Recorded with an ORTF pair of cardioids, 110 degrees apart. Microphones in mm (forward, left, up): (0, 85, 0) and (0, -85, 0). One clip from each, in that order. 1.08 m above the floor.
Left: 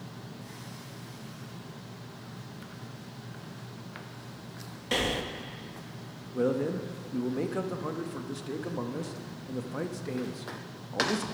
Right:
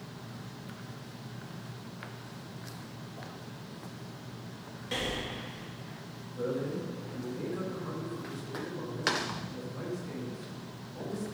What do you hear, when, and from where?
4.9 s breathing: 35° left, 0.8 m
6.3 s a man speaking: 65° left, 1.1 m